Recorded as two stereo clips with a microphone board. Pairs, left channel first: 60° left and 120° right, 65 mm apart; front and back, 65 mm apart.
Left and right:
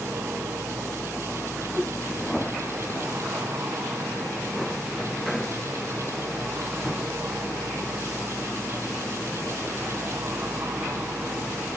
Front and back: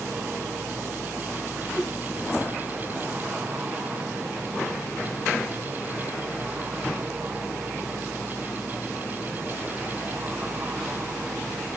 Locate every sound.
1.7 s a whoosh: 55° right, 3.5 m